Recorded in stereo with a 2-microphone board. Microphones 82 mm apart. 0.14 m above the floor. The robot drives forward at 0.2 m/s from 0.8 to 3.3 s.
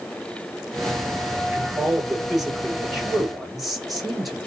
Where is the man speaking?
Centre (ahead or behind), 2.5 m.